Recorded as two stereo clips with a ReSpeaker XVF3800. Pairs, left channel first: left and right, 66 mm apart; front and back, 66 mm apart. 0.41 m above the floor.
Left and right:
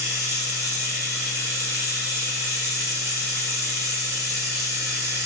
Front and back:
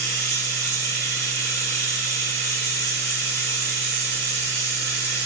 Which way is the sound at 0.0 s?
50° right.